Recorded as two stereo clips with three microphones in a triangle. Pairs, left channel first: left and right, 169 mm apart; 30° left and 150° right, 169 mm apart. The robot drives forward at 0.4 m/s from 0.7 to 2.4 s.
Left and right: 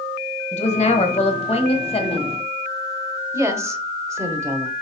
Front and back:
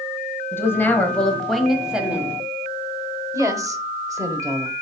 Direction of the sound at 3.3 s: 125° right.